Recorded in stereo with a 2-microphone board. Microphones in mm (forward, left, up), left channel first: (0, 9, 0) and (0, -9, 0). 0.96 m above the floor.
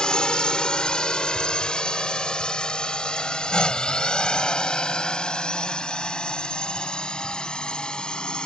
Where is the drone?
70° left (ahead or behind); by 8.5 s 75° left (ahead or behind).